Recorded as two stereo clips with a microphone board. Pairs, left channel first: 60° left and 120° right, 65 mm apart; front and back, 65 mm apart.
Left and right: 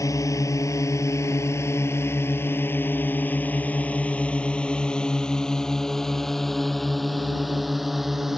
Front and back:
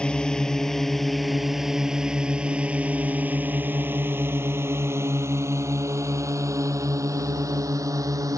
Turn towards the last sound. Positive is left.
turn(degrees=155)